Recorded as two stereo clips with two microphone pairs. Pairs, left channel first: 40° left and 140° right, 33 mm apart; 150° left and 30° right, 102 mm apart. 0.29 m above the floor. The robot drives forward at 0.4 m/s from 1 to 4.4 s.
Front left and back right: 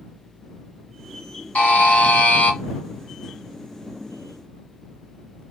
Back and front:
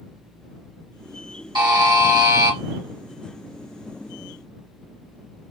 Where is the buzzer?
10° left, 1.1 m; by 2.6 s 20° left, 0.7 m.